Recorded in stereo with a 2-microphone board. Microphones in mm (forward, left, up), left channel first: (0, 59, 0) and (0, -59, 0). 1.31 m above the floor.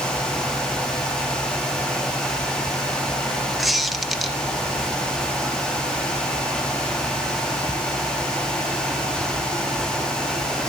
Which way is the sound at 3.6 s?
Centre (ahead or behind).